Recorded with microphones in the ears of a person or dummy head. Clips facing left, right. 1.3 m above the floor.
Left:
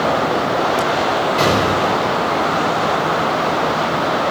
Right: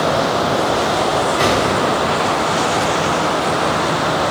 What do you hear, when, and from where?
1.4 s an explosion: 70° left (ahead or behind), 3.5 m